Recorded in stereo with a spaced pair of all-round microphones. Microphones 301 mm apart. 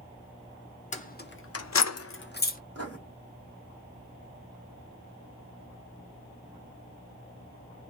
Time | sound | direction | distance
0.9 | keys jangling | 25° left (ahead or behind) | 0.9 m
2.8 | writing | 55° right (ahead or behind) | 1.6 m